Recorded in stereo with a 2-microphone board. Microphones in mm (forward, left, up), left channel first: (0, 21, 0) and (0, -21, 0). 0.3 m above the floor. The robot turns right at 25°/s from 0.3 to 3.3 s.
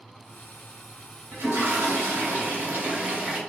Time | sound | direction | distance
1.3 | a toilet flushing | 75° right | 1.4 m